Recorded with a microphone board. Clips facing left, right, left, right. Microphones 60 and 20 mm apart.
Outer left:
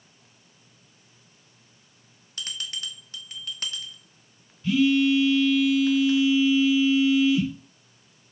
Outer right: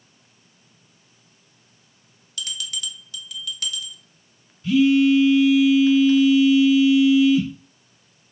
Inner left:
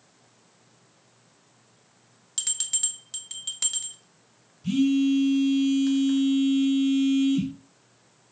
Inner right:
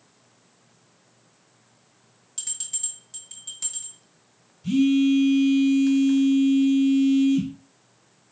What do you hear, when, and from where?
2.4 s a bell: 40° left (ahead or behind), 0.6 m
4.6 s a phone buzzing: centre (ahead or behind), 2.5 m